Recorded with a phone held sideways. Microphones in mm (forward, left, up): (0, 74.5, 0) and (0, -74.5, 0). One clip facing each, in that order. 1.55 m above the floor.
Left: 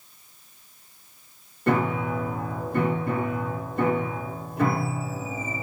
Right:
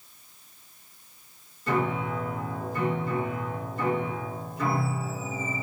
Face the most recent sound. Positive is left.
turn(degrees=60)  # may be behind; listen again after turning